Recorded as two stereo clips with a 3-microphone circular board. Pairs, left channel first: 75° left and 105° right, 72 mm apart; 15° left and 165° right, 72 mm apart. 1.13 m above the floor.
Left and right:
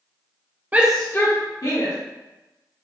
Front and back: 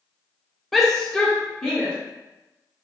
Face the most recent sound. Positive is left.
turn(degrees=95)